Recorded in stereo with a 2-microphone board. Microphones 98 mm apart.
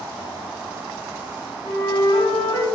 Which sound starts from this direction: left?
A flute, at 1.6 s.